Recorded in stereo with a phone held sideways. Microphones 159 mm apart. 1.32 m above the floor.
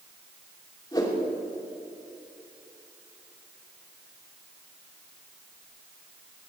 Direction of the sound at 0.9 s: 25° left (ahead or behind).